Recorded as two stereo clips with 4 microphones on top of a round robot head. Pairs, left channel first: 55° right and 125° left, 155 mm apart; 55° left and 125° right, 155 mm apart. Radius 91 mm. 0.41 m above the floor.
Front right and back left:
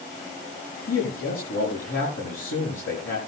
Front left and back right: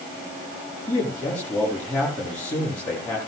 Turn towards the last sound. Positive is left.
turn(degrees=-25)